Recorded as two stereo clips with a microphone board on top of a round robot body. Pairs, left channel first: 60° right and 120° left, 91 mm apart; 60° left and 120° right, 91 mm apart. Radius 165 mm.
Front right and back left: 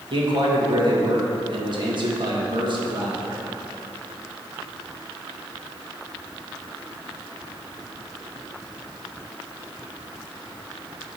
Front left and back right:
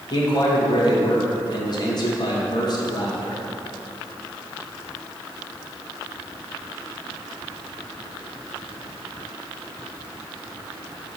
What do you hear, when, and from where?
0.1 s a man speaking: 95° left, 1.8 m